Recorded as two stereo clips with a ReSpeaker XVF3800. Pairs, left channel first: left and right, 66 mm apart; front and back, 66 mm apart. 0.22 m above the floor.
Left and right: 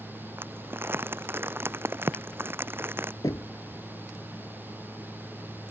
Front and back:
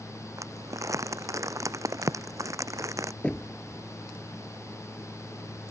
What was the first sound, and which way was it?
Crumpling, 140° right.